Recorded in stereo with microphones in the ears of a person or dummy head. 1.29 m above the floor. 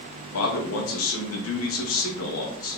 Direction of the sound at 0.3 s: 75° left (ahead or behind).